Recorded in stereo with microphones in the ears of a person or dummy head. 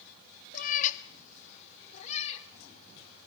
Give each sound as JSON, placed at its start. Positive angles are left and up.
{"t": 0.5, "sound": "a cat meowing", "side_deg": 50, "distance_m": 0.9}